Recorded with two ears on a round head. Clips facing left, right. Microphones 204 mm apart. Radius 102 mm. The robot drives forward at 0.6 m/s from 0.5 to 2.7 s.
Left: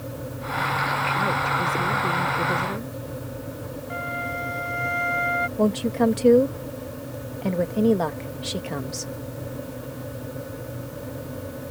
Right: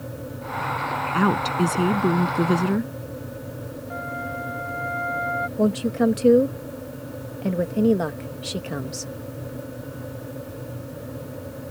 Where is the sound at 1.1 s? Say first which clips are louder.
Right 9 dB; 90° right; by 2.9 s 85° right.